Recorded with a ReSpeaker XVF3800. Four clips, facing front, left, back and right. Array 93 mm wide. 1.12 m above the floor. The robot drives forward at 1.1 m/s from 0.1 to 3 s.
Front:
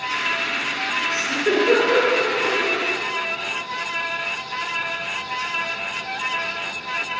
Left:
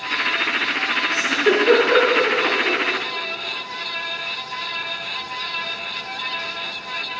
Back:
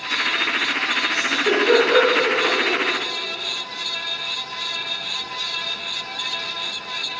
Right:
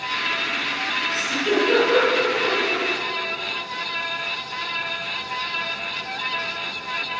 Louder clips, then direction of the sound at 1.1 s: Left 4 dB, even; 80° left.